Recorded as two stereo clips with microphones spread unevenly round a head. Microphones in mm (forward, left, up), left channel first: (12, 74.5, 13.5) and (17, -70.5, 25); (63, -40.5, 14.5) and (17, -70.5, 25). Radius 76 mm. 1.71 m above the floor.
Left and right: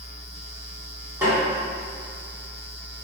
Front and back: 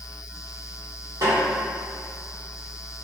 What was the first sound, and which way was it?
A snare drum, 155° right.